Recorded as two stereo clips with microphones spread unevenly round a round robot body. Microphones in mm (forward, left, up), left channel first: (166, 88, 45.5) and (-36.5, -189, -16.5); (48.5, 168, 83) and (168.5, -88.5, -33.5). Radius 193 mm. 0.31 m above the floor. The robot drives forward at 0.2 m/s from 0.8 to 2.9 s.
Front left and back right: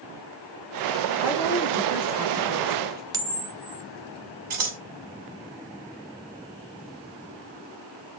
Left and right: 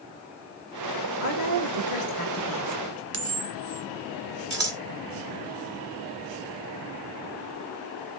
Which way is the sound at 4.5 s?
100° right.